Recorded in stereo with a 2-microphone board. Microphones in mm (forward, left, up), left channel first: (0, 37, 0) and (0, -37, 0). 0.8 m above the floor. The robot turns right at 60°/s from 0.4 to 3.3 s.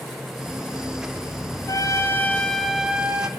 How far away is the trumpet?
About 1.5 m.